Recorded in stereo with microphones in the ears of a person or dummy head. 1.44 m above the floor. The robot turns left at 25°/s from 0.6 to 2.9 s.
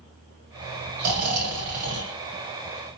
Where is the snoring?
55° right (ahead or behind), 0.7 m; by 2.2 s 65° right (ahead or behind), 0.7 m.